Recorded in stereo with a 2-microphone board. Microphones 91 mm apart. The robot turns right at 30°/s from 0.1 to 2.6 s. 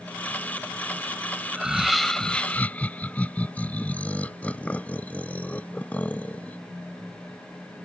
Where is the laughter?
15° right; by 6.6 s 20° left.